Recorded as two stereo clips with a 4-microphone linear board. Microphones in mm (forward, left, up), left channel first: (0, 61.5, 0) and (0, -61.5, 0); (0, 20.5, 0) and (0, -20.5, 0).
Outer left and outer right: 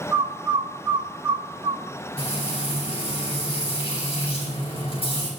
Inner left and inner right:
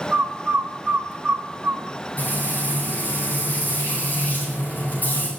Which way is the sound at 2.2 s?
50° left (ahead or behind).